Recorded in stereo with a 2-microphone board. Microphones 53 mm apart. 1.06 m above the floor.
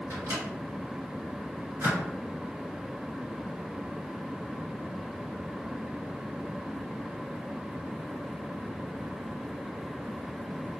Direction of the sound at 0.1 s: 70° right (ahead or behind).